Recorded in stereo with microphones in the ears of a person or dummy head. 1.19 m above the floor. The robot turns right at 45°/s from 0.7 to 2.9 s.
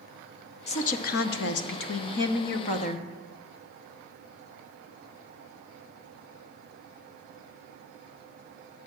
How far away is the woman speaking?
About 0.7 m.